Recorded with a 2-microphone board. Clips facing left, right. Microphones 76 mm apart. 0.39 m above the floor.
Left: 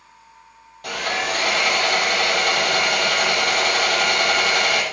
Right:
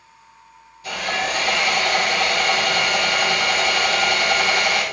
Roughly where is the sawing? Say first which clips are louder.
Even; left.